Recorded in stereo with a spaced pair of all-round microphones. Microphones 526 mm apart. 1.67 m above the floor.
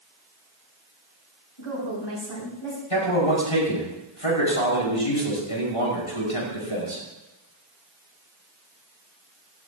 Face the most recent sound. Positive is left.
turn(degrees=85)